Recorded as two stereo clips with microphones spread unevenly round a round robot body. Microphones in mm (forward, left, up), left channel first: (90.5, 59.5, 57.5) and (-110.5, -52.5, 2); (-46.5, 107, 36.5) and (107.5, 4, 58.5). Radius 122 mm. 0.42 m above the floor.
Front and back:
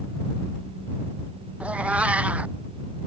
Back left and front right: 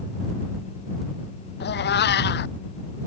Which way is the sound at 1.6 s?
120° left.